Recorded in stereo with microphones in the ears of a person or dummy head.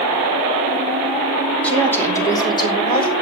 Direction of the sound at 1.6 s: 10° left (ahead or behind).